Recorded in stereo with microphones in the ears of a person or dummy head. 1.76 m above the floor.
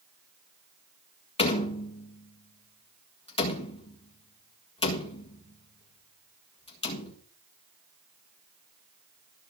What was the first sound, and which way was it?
A door slam, 25° left (ahead or behind).